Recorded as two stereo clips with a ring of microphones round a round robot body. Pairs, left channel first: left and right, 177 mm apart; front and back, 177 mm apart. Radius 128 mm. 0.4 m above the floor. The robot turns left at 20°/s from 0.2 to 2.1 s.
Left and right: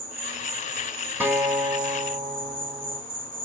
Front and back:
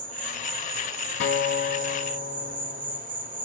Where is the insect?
160° right, 1.4 m; by 3.5 s 160° left, 1.4 m.